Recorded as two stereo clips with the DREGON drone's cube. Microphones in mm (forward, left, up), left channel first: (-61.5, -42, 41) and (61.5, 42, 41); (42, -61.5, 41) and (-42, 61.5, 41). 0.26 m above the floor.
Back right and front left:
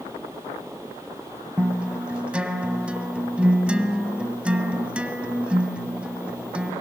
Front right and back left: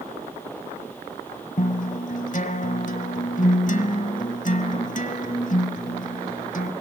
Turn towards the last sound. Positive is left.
turn(degrees=-45)